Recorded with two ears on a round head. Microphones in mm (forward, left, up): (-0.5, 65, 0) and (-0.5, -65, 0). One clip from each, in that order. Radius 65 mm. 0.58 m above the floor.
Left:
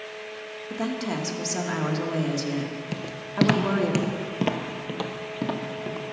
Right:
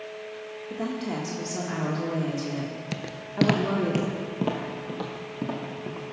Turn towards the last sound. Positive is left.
turn(degrees=65)  # may be behind; listen again after turning